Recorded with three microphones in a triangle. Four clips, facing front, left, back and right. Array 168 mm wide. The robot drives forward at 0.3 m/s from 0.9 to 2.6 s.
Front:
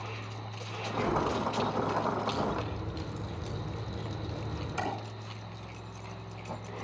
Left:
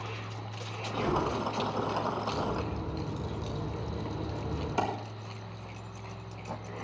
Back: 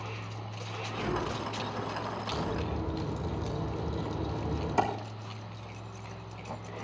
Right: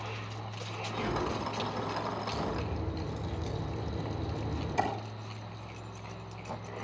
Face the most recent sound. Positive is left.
turn(degrees=160)